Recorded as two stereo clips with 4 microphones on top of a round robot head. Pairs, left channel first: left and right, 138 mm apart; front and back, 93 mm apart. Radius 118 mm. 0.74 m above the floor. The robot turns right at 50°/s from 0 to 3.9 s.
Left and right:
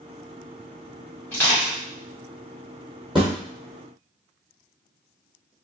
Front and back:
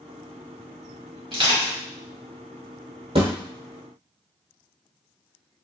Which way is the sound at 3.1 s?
Straight behind.